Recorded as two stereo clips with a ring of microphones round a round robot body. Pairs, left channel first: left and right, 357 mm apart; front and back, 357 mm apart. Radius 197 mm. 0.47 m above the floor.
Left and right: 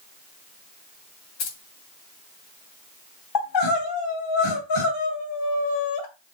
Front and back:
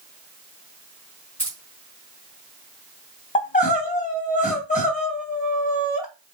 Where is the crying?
70° left, 3 m.